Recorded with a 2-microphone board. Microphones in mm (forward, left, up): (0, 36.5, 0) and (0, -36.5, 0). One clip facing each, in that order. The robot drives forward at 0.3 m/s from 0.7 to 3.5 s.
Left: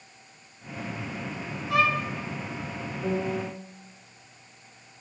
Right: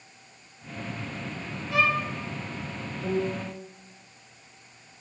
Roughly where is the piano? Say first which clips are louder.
Even; left.